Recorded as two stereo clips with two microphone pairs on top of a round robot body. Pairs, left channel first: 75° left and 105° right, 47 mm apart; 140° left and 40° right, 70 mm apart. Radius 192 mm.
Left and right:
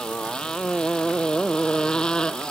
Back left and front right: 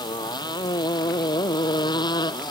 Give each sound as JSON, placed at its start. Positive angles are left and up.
{"t": 0.0, "sound": "a motorcycle", "azimuth_deg": 150}